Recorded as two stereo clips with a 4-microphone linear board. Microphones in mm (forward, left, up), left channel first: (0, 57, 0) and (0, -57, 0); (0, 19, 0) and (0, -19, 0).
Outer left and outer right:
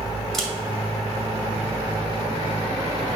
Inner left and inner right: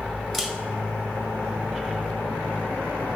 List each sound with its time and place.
0.3 s a camera shutter: 5° left (ahead or behind), 2.0 m